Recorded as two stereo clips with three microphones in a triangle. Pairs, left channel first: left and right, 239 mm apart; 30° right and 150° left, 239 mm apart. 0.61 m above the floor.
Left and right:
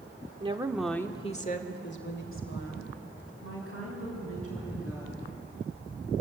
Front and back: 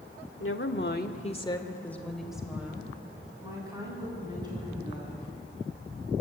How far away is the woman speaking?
About 1.4 m.